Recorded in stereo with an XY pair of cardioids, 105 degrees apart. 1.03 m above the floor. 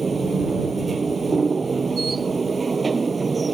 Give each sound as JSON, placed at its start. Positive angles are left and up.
{"t": 0.0, "sound": "a machine running", "azimuth_deg": -35}